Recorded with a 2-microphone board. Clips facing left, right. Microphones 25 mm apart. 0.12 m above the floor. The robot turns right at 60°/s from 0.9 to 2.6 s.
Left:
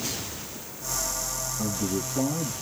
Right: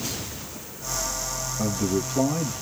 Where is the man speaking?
100° right, 2.5 m; by 2.5 s 45° right, 2.5 m.